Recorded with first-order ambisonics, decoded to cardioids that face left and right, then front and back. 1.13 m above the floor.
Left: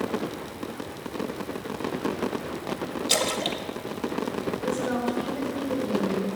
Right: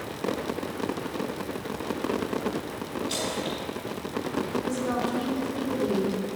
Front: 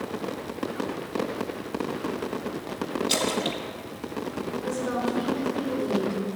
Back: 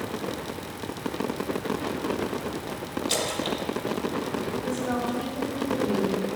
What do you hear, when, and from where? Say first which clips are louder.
3.1 s a splash: left 7 dB, front 1 dB; 85° left, 0.8 m
4.6 s a woman speaking: left 1 dB, front 4 dB; 85° right, 2.5 m